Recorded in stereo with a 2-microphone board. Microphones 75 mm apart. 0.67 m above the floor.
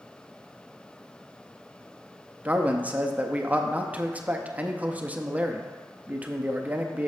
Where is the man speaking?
20° right (ahead or behind), 0.5 m.